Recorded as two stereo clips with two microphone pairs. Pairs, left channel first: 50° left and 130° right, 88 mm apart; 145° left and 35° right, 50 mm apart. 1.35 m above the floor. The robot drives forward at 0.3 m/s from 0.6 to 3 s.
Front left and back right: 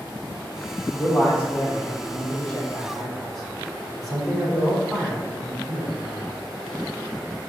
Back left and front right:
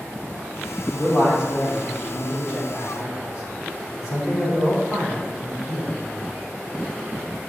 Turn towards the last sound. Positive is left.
turn(degrees=135)